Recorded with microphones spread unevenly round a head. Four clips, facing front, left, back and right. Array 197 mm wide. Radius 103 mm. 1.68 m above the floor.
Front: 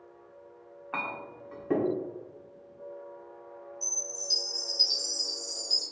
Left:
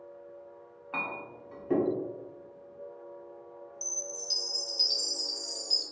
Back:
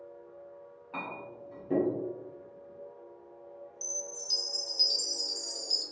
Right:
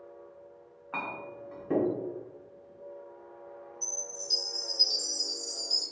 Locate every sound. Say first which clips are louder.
0.9 s a clink: even, front 3 dB; 55° right, 0.7 m
3.8 s a chime: left 1 dB, even; 145° left, 0.8 m